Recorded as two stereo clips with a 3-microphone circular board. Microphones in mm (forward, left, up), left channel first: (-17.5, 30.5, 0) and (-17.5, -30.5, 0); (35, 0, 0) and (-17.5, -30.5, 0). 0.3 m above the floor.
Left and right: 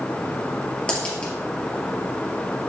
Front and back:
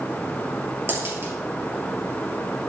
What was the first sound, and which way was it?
A dropped coin, 165° left.